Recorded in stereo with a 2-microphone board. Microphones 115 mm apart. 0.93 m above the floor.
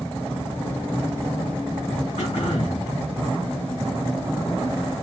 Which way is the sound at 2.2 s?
70° left (ahead or behind).